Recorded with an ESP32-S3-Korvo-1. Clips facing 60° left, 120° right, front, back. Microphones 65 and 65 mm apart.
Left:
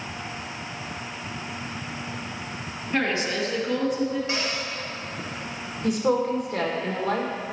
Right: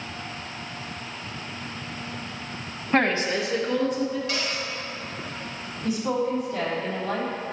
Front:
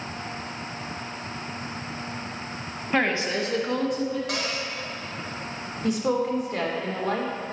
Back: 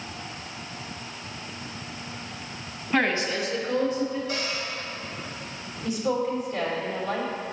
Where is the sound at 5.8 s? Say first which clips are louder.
Left 3 dB, front 2 dB; 35° left, 1.4 m.